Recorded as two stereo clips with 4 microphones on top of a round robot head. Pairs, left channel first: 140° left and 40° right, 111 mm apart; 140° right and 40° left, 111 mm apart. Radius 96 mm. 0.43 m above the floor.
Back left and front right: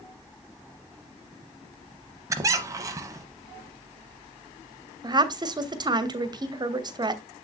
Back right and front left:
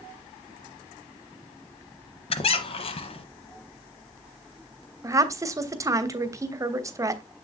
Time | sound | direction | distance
2.3 | a squeak | 100° right | 0.8 m
5.0 | a woman speaking | 10° right | 1.3 m